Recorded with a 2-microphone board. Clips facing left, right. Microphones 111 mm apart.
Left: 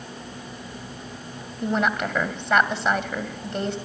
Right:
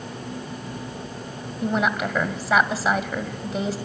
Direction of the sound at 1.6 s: 5° right (ahead or behind).